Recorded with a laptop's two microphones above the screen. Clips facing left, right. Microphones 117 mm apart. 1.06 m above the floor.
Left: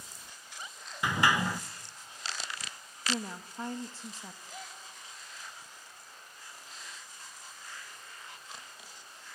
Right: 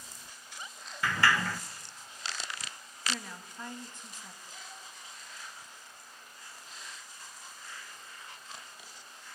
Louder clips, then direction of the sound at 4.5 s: Left 3 dB; 50° left (ahead or behind).